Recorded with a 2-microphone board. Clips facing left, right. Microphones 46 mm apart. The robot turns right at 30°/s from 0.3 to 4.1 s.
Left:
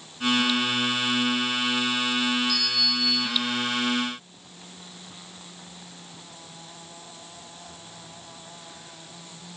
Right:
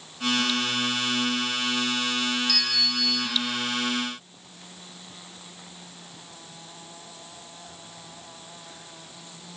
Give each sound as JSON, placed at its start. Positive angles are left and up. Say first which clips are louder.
{"t": 2.5, "sound": "a bell", "louder": "even", "side_deg": -80, "distance_m": 1.4}